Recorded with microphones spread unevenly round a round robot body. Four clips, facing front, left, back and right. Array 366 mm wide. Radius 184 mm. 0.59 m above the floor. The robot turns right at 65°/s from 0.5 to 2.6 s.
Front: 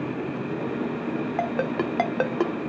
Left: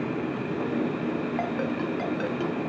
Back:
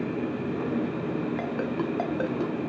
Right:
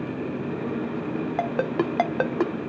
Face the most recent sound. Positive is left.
turn(degrees=-20)